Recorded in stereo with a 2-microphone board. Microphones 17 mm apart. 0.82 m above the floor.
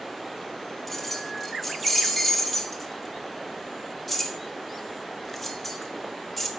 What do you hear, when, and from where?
0.9 s keys jangling: centre (ahead or behind), 1.0 m